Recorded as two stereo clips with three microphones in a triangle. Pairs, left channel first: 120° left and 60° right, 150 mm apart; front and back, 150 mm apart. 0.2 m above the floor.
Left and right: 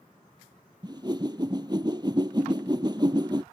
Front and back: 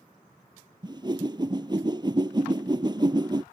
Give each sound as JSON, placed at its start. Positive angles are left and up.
{"t": 0.8, "sound": "a whoosh", "azimuth_deg": -120}